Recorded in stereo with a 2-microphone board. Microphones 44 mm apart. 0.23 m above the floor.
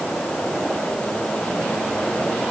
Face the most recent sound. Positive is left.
No sound to turn to.